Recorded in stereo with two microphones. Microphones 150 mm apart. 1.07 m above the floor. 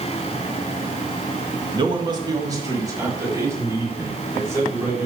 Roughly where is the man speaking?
Right.